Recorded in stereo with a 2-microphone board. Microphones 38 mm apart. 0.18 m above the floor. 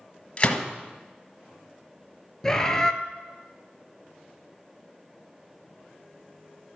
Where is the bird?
15° left (ahead or behind), 0.8 m.